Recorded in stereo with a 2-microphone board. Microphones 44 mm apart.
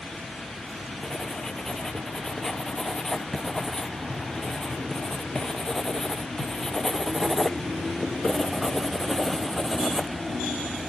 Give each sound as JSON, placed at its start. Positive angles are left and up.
{"t": 1.0, "sound": "writing", "side_deg": 10}